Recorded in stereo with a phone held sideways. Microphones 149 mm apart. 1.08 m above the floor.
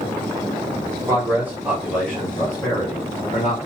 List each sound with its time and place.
1.1 s a man speaking: 20° right (ahead or behind), 1.1 m; by 3.6 s 50° left (ahead or behind), 1.0 m